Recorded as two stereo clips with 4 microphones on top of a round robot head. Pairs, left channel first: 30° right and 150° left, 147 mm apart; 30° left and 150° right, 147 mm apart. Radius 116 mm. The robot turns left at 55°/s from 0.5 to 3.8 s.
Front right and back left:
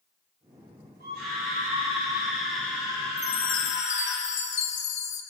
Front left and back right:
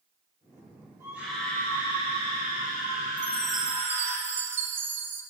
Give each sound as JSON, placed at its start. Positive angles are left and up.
{"t": 1.0, "sound": "a scream", "azimuth_deg": 140, "distance_m": 4.0}
{"t": 3.2, "sound": "a chime", "azimuth_deg": -40, "distance_m": 0.6}